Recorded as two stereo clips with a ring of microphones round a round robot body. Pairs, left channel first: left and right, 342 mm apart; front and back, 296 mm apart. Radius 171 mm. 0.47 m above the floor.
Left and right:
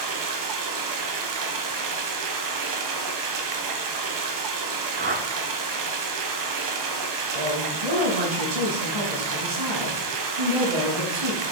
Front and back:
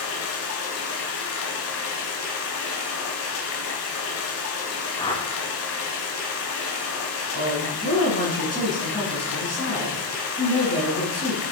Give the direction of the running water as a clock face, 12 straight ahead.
2 o'clock.